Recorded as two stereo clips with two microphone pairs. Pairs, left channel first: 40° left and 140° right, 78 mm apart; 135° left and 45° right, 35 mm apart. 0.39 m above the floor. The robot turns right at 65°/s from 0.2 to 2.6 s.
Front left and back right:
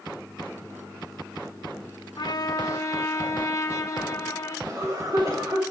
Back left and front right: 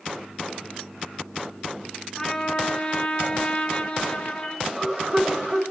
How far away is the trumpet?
About 1.1 m.